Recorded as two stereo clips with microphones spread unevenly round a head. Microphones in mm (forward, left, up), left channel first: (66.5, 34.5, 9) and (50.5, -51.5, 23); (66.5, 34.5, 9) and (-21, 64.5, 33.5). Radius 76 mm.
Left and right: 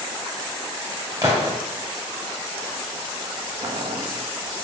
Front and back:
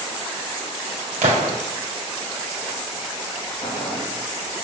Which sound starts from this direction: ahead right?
Boiling, at 3.6 s.